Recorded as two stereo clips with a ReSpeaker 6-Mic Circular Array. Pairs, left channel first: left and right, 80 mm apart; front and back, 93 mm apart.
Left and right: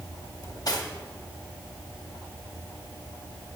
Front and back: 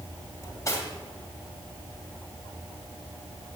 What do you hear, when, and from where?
0.4 s cutlery clinking: 55° left, 2.5 m